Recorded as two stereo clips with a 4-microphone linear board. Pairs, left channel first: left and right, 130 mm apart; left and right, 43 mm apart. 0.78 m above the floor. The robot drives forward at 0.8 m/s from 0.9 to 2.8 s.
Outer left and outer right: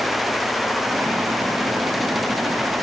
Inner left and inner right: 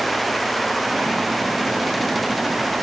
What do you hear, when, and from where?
Only background noise.